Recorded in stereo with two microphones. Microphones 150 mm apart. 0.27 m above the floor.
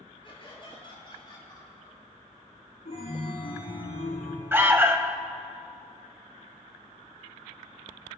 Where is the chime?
80° left, 5.5 m.